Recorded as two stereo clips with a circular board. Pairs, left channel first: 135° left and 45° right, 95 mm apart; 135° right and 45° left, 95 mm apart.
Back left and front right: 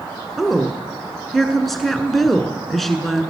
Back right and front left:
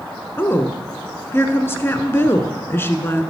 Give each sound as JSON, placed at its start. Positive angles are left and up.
{"t": 0.4, "sound": "a woman speaking", "azimuth_deg": -140, "distance_m": 1.1}